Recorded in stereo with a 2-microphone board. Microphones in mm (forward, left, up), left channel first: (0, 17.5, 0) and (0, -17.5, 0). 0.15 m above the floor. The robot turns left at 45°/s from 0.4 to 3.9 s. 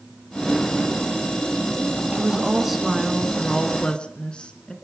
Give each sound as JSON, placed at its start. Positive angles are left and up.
{"t": 2.1, "sound": "a woman speaking", "azimuth_deg": -145, "distance_m": 1.5}